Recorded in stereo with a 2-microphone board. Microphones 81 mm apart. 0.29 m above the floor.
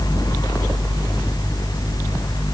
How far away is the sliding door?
I don't hear a sliding door.